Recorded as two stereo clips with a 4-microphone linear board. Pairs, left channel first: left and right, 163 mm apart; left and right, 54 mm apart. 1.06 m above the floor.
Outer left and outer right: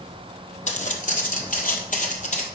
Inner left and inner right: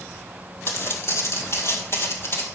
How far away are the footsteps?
About 2 m.